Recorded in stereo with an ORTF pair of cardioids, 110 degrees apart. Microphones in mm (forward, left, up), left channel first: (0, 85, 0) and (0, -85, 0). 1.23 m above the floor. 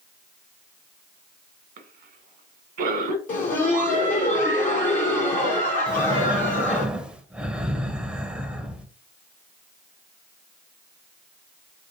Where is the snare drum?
I don't hear a snare drum.